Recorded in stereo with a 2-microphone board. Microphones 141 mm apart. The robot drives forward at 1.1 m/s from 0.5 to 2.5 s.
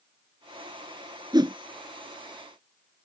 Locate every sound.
1.3 s a whoosh: 30° right (ahead or behind); by 1.6 s 35° right (ahead or behind)